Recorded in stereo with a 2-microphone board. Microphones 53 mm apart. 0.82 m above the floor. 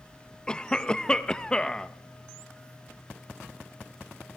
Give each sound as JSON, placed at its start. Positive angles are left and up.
{"t": 0.5, "sound": "a cough", "side_deg": 15, "distance_m": 0.6}